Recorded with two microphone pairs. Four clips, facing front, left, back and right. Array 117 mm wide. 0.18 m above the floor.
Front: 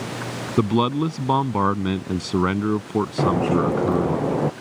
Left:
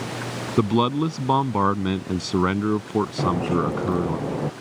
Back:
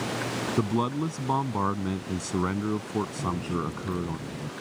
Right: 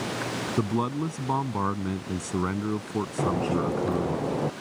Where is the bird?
Straight ahead.